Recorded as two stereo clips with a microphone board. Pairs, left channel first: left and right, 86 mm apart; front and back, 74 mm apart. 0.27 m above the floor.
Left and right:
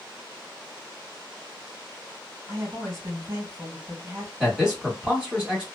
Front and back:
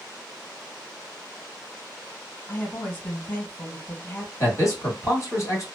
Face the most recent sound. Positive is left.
turn(degrees=-15)